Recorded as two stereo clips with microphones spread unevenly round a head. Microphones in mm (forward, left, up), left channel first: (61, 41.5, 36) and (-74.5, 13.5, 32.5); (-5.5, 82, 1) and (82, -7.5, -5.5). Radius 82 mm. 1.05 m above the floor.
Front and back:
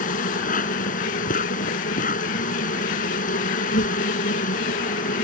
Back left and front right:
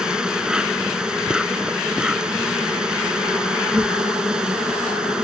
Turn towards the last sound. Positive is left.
turn(degrees=40)